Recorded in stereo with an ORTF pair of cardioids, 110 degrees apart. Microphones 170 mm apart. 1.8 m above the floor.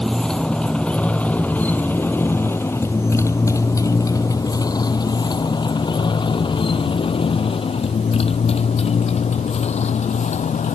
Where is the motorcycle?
5° left; by 10.7 s 45° left.